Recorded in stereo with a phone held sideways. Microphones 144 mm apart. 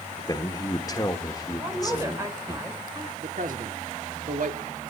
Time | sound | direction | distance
0.3 | a man speaking | 25° left (ahead or behind) | 1.4 m
1.6 | a woman speaking | 20° right (ahead or behind) | 4.5 m
3.2 | a man speaking | 65° right (ahead or behind) | 3 m